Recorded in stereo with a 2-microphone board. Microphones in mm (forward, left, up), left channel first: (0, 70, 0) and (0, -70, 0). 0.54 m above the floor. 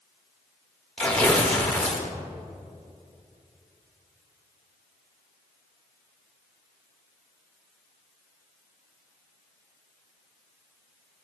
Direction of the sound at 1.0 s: 5° left (ahead or behind).